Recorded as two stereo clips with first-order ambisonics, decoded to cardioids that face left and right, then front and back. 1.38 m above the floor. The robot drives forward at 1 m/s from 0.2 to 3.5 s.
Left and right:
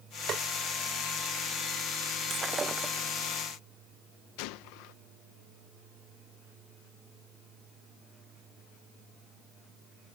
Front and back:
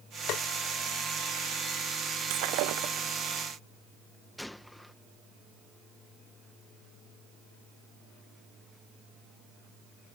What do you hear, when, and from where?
0.3 s tapping: 35° right
2.3 s breaking glass: 165° right
4.4 s a gunshot: 85° left